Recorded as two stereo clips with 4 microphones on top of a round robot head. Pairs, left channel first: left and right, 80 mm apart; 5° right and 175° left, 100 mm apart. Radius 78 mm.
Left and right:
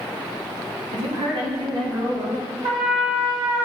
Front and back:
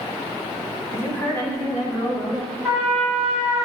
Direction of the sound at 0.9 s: 80° right.